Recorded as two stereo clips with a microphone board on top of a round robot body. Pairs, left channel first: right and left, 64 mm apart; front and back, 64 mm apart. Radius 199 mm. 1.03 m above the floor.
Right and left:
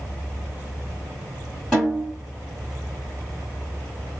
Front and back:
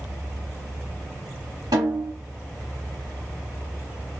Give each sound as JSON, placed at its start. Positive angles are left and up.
{"t": 1.7, "sound": "a snare drum", "azimuth_deg": -175, "distance_m": 1.3}